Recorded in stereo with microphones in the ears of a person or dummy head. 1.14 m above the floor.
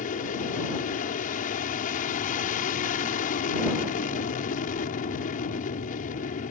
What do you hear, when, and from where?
0.0 s an aircraft: 45° left (ahead or behind)